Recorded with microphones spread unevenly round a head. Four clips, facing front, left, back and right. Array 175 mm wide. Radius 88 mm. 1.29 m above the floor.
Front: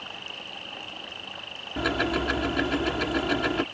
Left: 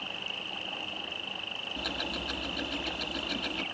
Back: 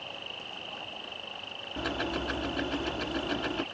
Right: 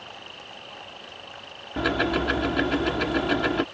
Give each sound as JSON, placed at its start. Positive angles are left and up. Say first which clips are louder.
{"t": 0.0, "sound": "an insect", "louder": "left 1 dB, front 2 dB", "azimuth_deg": 75}
{"t": 1.8, "sound": "ticking", "louder": "right 14 dB, front 7 dB", "azimuth_deg": -65}